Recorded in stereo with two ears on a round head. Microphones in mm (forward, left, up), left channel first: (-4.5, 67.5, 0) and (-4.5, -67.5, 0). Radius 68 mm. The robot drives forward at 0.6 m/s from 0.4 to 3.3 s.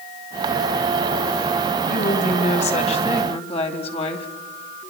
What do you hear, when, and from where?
1.9 s a woman speaking: 55° left (ahead or behind), 2.5 m; by 4.3 s 40° left (ahead or behind), 3 m